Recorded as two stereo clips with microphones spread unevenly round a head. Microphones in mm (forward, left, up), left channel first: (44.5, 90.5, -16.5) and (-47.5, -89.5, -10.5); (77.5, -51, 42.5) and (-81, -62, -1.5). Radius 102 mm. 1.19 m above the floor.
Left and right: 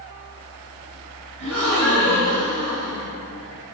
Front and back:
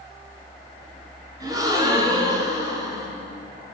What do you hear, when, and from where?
1.4 s a gasp: 105° right, 4.5 m